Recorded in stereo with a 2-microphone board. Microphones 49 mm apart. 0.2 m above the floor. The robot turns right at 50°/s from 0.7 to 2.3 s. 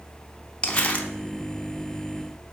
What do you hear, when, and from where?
0.6 s crumpling: 20° left (ahead or behind), 0.6 m; by 1.1 s 35° left (ahead or behind), 0.6 m